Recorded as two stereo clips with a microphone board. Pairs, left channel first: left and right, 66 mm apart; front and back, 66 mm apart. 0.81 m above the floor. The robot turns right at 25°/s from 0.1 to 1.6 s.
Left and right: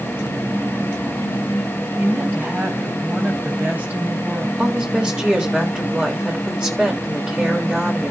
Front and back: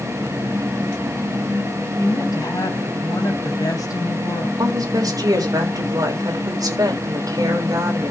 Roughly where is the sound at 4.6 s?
Behind.